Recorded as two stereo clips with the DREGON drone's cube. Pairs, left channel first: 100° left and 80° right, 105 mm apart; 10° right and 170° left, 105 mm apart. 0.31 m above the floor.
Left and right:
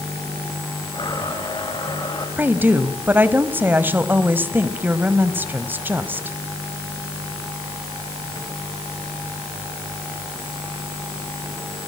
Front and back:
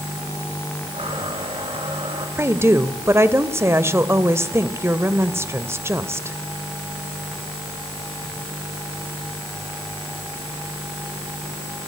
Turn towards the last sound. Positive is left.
turn(degrees=-140)